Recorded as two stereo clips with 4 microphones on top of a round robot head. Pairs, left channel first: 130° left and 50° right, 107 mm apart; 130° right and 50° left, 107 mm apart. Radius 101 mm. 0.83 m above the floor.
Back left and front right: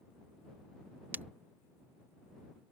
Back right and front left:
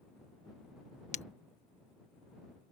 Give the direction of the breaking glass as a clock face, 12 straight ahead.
4 o'clock.